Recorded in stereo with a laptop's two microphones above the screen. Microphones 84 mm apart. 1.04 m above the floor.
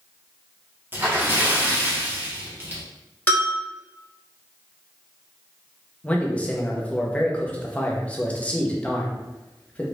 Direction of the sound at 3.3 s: 20° left (ahead or behind).